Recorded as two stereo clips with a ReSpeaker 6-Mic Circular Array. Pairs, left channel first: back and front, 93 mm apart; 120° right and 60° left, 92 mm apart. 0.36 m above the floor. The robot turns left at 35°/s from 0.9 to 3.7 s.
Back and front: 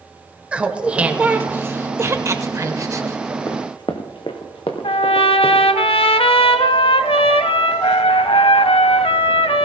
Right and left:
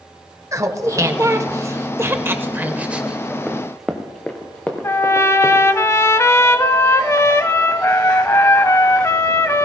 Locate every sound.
0.5 s laughter: 65° left, 1.0 m; by 3.4 s 20° right, 1.0 m
3.5 s running footsteps: 145° left, 1.0 m; by 5.7 s 175° left, 2.5 m
4.8 s a trumpet: straight behind, 0.5 m